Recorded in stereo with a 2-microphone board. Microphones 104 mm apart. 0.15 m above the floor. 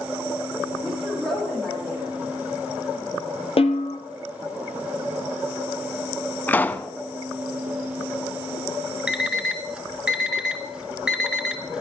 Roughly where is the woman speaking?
Centre.